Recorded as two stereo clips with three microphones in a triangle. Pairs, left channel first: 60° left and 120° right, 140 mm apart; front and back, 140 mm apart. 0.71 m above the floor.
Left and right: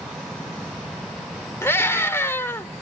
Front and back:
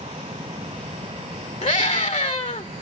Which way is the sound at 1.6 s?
5° right.